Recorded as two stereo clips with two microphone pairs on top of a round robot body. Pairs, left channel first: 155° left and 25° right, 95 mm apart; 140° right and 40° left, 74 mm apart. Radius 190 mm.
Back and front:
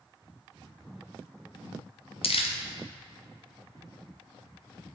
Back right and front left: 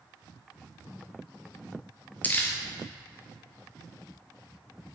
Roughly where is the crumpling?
Behind left.